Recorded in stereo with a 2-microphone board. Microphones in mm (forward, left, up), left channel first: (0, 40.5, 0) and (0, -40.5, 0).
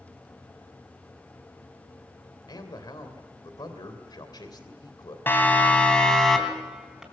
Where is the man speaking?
60° left (ahead or behind), 2.5 m.